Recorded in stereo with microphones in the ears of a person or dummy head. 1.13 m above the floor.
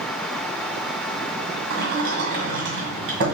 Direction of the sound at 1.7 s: 60° right (ahead or behind).